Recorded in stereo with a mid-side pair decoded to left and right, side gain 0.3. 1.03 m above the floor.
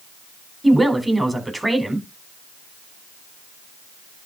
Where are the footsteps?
No footsteps in this recording.